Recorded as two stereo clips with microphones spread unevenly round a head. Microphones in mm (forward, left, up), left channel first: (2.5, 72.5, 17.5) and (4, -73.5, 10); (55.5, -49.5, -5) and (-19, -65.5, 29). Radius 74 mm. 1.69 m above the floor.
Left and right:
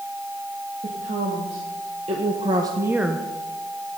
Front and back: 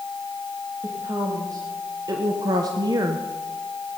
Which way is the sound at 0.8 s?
135° right.